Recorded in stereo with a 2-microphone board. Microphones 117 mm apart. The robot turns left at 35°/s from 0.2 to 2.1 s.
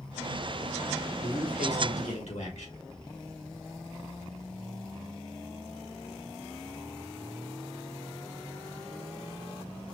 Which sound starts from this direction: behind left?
A man speaking, at 1.2 s.